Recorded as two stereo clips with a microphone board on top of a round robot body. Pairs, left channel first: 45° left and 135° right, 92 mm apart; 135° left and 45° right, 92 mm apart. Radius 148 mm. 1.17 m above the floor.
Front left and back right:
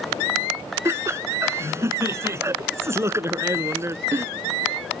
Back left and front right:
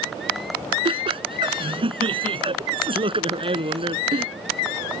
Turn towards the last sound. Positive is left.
turn(degrees=-75)